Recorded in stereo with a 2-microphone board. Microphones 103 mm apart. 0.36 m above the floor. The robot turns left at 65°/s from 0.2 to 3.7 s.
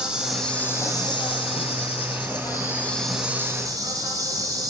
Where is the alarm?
I don't hear an alarm.